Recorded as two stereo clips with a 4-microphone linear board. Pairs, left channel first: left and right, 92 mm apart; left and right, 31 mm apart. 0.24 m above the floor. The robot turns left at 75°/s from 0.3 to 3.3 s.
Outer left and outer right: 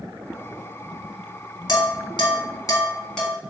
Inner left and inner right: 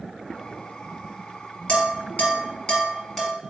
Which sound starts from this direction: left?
Dishes clattering, at 1.7 s.